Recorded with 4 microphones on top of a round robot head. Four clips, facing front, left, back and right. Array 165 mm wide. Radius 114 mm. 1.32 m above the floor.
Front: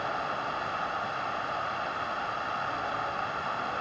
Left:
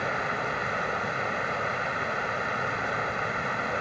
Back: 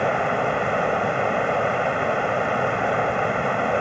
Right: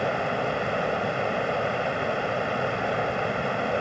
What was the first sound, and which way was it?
Running water, 155° right.